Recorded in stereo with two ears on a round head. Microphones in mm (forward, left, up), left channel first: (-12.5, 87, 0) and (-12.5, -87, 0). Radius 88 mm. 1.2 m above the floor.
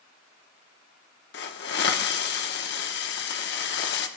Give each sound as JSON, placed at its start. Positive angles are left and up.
{"t": 1.3, "sound": "a hiss", "side_deg": 60, "distance_m": 1.1}